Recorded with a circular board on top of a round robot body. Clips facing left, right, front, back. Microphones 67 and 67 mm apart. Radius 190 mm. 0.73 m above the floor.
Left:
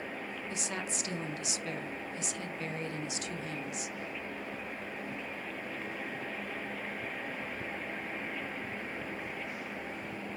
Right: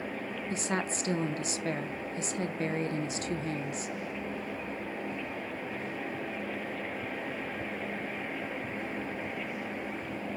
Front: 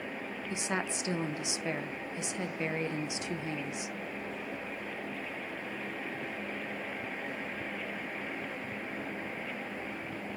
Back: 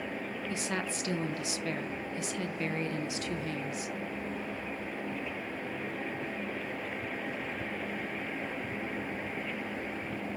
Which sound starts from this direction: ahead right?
A woman speaking, at 0.5 s.